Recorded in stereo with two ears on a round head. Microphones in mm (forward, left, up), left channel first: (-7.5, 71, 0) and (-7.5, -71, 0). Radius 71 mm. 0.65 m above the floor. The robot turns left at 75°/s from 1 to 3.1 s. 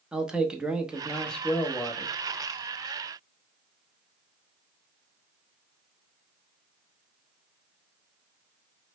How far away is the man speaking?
About 0.7 m.